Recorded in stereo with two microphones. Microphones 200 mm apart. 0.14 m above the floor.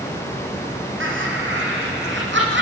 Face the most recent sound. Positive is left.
turn(degrees=-60)  # may be behind; listen again after turning